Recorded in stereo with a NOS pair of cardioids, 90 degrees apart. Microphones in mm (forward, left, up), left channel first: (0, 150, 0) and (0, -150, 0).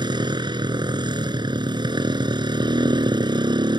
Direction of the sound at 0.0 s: 15° right.